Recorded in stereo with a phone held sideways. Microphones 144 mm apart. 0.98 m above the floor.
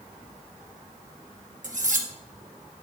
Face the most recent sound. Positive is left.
turn(degrees=-65)  # may be behind; listen again after turning